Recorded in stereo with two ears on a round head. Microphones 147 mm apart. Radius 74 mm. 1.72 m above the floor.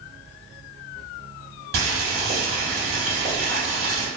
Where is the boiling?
60° right (ahead or behind), 1.9 m.